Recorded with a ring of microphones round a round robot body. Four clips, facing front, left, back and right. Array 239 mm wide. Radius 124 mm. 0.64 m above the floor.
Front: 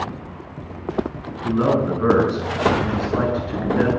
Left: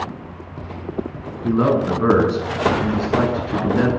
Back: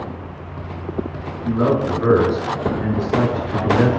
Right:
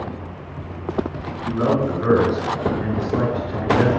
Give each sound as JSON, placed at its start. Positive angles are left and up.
{"t": 1.4, "sound": "a man speaking", "azimuth_deg": 90, "distance_m": 7.0}